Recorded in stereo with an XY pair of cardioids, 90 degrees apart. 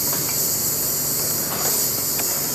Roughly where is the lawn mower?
Ahead.